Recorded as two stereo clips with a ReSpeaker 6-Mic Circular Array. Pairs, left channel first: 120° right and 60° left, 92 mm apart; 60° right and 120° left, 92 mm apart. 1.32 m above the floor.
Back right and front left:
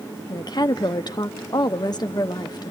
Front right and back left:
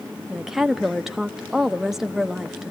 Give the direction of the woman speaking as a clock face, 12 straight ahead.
5 o'clock.